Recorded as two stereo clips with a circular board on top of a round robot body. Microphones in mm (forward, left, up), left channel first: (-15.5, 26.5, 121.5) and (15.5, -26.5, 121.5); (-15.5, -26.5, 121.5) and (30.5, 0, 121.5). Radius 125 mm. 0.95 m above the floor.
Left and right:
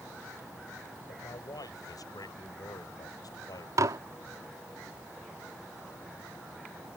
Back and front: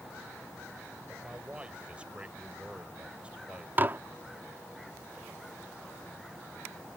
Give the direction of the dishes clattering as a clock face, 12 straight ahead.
1 o'clock.